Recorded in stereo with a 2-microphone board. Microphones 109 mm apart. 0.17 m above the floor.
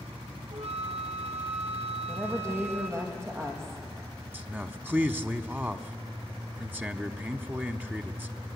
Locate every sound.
0.5 s a flute: 75° right (ahead or behind), 1.4 m
2.1 s a woman speaking: 25° right (ahead or behind), 5.5 m
4.3 s a man speaking: 20° right (ahead or behind), 1.0 m